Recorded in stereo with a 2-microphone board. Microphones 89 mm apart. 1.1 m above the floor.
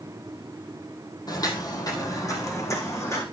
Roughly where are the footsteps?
Left.